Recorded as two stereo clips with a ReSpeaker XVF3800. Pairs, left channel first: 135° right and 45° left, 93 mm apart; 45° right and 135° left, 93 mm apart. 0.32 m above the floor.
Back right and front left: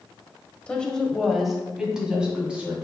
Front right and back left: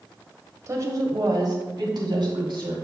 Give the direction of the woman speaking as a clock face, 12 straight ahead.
7 o'clock.